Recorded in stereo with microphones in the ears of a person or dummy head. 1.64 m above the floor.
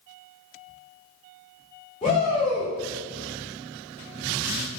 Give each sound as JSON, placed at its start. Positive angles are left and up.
{"t": 2.0, "sound": "a shout", "side_deg": 25, "distance_m": 0.8}